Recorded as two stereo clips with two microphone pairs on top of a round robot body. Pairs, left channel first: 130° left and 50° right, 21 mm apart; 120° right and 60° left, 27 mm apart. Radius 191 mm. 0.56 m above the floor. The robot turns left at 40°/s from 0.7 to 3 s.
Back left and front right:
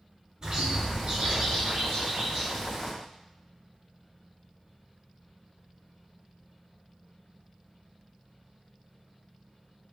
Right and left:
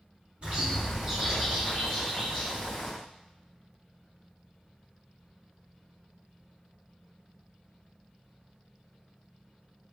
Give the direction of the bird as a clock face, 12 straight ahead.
12 o'clock.